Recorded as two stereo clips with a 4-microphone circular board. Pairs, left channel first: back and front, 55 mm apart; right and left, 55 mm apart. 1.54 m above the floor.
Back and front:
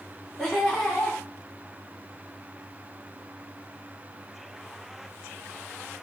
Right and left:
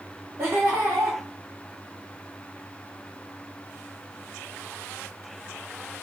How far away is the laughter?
About 1.2 m.